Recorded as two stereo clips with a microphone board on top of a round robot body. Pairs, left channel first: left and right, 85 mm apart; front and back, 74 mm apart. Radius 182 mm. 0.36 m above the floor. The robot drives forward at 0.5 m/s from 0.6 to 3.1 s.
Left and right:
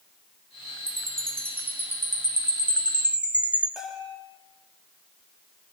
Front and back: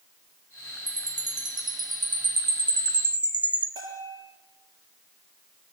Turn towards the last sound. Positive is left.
turn(degrees=-175)